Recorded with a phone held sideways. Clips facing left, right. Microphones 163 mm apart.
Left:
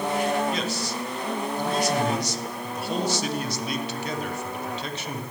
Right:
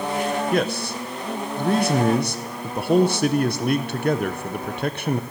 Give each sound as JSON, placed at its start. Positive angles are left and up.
{"t": 0.5, "sound": "a man speaking", "side_deg": -55, "distance_m": 0.7}